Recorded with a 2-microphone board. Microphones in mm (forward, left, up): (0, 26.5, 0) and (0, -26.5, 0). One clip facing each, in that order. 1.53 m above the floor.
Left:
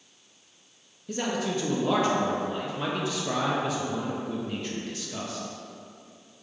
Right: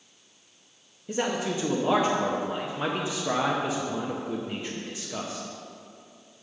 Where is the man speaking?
20° right (ahead or behind), 0.6 m.